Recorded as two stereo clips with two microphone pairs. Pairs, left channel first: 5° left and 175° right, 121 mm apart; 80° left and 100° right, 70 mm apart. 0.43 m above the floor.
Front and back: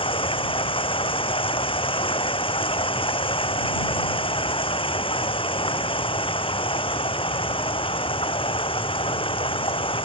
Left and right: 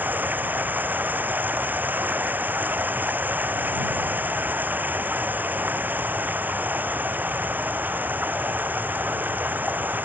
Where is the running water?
35° right.